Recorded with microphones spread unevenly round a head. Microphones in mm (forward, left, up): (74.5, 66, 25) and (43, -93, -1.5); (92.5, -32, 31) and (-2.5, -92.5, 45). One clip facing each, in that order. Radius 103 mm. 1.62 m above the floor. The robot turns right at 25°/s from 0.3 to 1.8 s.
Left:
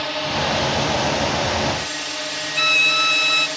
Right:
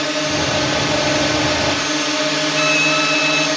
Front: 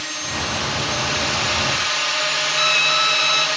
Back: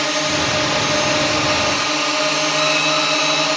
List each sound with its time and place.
0.0 s a drone: 140° right; by 3.6 s 105° right
2.6 s a violin: straight ahead